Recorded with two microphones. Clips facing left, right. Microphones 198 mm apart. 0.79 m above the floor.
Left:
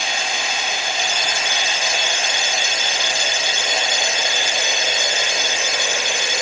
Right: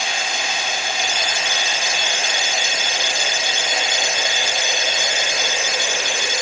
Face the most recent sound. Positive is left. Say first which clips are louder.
# even
turn(degrees=-45)  # may be behind; listen again after turning